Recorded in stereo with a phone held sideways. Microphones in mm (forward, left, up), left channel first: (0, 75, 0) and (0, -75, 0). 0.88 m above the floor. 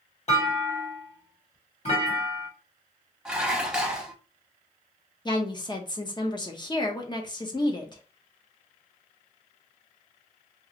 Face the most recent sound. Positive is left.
turn(degrees=30)  # may be behind; listen again after turning